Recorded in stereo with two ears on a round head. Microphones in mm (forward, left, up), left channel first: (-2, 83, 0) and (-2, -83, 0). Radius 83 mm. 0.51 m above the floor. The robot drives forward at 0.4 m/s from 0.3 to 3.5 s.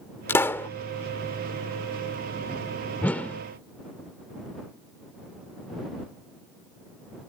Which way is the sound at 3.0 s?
10° left (ahead or behind).